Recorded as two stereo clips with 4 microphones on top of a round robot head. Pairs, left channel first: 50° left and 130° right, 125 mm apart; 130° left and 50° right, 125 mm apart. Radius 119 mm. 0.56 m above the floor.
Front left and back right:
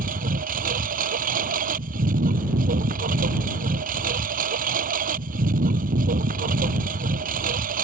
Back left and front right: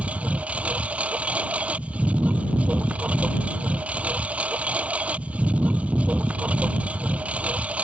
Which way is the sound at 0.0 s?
130° right.